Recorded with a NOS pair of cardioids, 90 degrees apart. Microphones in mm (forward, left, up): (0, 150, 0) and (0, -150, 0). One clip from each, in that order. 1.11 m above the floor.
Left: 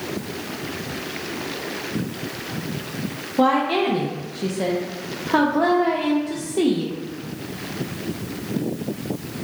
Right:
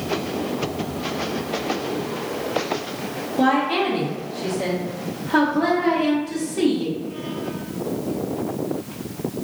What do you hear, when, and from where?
3.4 s a woman speaking: 25° left, 0.5 m